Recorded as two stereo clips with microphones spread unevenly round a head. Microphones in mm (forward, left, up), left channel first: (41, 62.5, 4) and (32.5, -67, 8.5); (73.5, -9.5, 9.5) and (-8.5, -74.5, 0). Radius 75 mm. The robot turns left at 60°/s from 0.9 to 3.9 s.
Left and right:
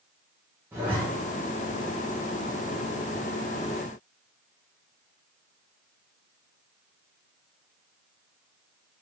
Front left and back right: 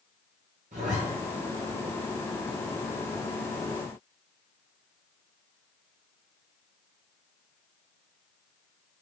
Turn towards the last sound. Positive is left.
turn(degrees=10)